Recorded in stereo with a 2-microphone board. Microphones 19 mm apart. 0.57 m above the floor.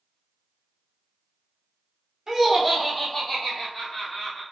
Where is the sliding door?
I don't hear a sliding door.